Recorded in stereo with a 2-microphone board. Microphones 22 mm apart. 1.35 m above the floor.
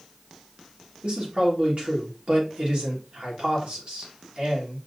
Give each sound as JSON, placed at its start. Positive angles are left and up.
{"t": 1.0, "sound": "a man speaking", "side_deg": -65, "distance_m": 1.7}